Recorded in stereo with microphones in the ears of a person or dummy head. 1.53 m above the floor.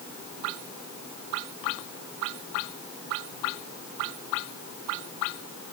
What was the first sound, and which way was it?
Only background noise.